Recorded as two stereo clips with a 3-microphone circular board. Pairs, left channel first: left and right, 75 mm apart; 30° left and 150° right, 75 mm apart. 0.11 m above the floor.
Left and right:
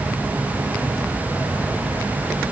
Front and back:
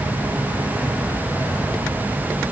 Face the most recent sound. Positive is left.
No sound to turn to.